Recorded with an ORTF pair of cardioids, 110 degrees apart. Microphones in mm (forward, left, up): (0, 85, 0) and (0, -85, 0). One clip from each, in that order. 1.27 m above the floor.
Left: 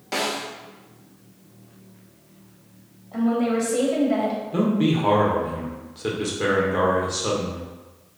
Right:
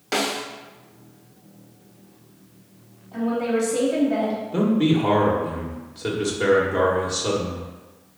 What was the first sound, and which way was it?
A snare drum, 20° right.